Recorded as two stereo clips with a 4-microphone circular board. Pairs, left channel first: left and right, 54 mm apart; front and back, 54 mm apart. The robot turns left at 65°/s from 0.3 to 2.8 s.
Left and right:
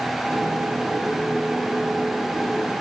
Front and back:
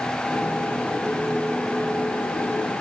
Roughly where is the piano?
I don't hear a piano.